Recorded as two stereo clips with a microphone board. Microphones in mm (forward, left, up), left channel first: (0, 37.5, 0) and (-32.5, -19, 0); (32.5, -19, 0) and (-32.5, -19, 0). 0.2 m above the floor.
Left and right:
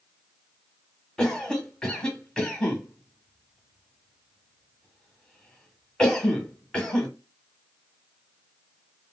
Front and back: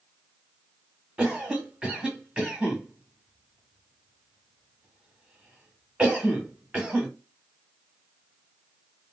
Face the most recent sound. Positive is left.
turn(degrees=125)